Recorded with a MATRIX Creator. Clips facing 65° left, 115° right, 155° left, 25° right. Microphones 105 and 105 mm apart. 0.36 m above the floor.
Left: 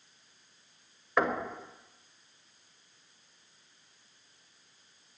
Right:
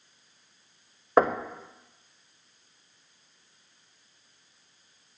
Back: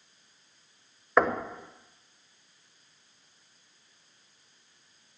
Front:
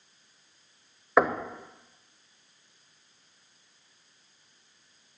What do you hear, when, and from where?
1.2 s knocking: 105° right, 0.9 m